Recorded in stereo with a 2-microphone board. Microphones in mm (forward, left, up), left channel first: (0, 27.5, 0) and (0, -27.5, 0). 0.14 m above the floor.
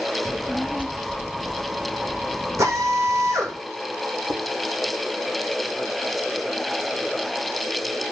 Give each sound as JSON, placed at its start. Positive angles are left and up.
{"t": 0.2, "sound": "a child speaking", "side_deg": -20, "distance_m": 0.8}
{"t": 2.6, "sound": "a drill", "side_deg": -60, "distance_m": 7.5}
{"t": 4.3, "sound": "dishes clattering", "side_deg": -80, "distance_m": 4.0}